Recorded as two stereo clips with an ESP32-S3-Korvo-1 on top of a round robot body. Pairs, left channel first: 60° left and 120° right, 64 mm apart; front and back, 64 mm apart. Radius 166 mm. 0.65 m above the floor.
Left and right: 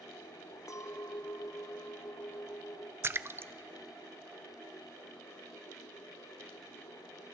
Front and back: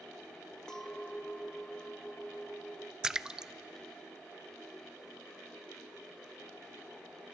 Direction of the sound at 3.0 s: 105° right.